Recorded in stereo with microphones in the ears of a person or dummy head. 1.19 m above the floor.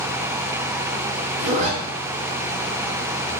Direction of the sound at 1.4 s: 40° right (ahead or behind).